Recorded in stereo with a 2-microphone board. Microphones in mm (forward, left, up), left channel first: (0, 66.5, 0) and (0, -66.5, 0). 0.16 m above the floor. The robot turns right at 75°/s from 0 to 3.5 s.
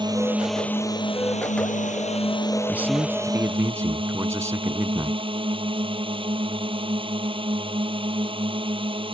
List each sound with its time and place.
0.0 s a drone: 40° right; by 9.2 s 135° right
2.7 s a man speaking: 10° right (ahead or behind); by 5.3 s 20° right (ahead or behind)